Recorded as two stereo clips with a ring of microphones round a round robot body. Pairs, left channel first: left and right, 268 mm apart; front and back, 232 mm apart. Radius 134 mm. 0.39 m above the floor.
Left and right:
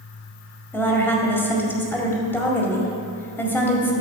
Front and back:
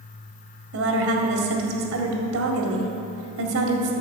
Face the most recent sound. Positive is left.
turn(degrees=170)